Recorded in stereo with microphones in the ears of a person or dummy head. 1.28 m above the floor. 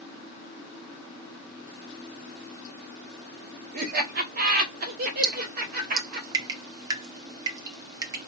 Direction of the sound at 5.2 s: 20° right (ahead or behind).